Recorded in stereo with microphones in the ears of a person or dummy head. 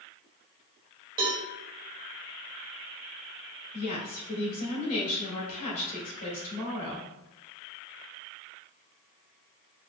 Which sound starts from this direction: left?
A woman speaking, at 3.7 s.